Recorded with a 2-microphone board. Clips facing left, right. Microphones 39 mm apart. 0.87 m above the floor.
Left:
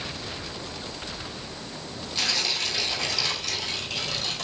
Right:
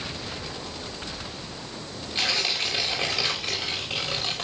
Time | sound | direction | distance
2.1 | tearing paper | 25° right (ahead or behind) | 4.5 m